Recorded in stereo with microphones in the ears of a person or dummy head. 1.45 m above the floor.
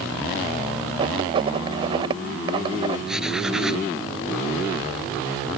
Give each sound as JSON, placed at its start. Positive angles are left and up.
{"t": 1.0, "sound": "writing", "side_deg": -35}
{"t": 3.1, "sound": "writing", "side_deg": -10}